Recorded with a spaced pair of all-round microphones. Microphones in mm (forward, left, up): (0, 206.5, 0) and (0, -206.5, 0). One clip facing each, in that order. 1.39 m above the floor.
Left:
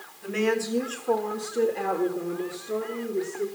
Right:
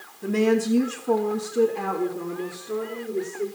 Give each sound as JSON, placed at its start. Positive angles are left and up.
{"t": 0.2, "sound": "a woman speaking", "side_deg": -60, "distance_m": 1.5}